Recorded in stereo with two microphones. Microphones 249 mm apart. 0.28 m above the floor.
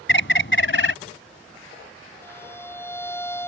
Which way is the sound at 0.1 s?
50° left (ahead or behind).